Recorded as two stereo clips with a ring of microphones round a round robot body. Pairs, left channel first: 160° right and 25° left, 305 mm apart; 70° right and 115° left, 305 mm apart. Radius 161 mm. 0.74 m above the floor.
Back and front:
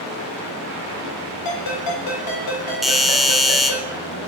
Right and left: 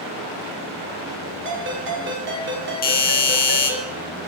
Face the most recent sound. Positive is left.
turn(degrees=-65)